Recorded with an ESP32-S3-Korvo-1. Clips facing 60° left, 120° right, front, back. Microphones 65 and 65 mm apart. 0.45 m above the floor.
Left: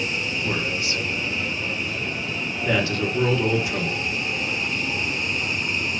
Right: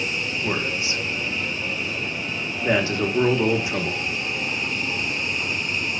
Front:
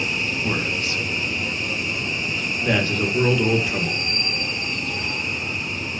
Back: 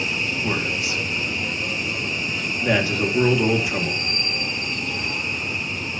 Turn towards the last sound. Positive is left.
turn(degrees=-110)